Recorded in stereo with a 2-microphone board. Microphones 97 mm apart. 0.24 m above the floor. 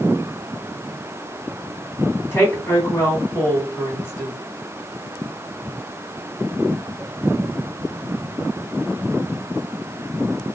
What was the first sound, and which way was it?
A woman speaking, 25° left (ahead or behind).